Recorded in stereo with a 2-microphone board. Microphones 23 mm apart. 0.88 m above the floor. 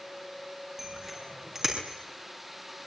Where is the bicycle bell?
15° right (ahead or behind), 7 m; by 1.8 s 20° right (ahead or behind), 6.5 m.